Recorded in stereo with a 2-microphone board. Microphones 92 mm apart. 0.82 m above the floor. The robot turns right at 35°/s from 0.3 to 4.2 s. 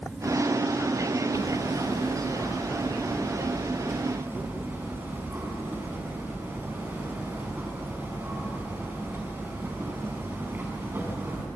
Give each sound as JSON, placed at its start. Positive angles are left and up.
{"t": 1.3, "sound": "hammering", "azimuth_deg": 105, "distance_m": 6.0}